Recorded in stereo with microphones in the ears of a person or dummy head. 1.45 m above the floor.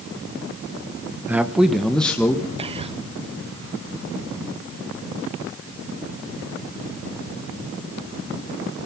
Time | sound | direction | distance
1.3 | a man speaking | 5° right (ahead or behind) | 1.0 m
2.6 | whispering | 25° right (ahead or behind) | 0.8 m